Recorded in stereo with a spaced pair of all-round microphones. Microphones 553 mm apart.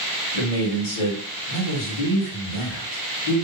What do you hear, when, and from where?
0.3 s a man speaking: 65° left (ahead or behind), 1.3 m